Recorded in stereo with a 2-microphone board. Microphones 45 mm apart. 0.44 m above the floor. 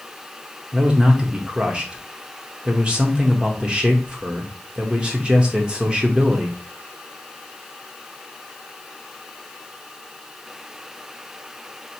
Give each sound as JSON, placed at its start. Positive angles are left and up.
{"t": 0.7, "sound": "a man speaking", "side_deg": -20, "distance_m": 0.8}